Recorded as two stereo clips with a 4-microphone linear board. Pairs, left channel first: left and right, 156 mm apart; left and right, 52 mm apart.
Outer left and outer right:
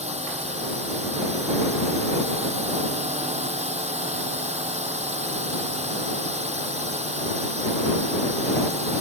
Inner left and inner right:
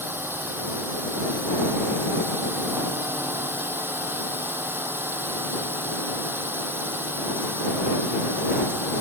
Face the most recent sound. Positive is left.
turn(degrees=-45)  # may be behind; listen again after turning